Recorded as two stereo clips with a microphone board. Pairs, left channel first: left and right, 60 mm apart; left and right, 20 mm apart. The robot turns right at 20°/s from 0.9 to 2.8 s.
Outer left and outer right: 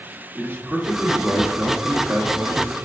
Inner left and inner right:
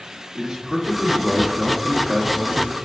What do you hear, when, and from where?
0.3 s a man speaking: 140° right, 1.3 m; by 2.7 s 105° right, 1.3 m